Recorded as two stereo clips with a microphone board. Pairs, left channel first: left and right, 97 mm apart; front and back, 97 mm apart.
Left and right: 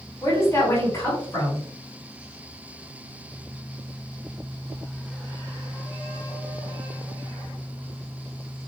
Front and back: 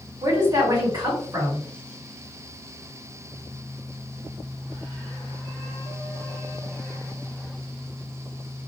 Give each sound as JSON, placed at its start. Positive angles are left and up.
{"t": 0.2, "sound": "a woman speaking", "azimuth_deg": 140, "distance_m": 1.9}